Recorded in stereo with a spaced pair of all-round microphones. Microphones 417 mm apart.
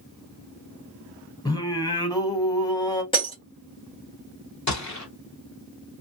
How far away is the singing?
About 0.7 m.